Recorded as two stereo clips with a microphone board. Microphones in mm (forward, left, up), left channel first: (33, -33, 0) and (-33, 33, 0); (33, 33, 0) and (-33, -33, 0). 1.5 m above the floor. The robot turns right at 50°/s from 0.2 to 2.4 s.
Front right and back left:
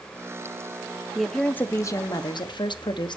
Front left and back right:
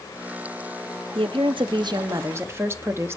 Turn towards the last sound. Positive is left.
turn(degrees=-75)